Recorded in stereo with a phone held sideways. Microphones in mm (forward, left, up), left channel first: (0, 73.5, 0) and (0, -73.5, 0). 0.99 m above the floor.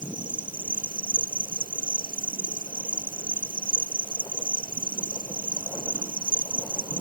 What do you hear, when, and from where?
0.0 s an insect: 65° right (ahead or behind)